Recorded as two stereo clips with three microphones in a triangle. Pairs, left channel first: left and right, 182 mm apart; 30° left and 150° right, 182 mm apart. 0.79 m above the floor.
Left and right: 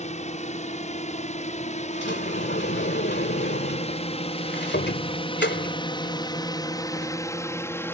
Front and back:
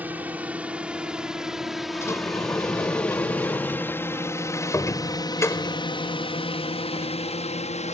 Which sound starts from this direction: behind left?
A drone, at 0.0 s.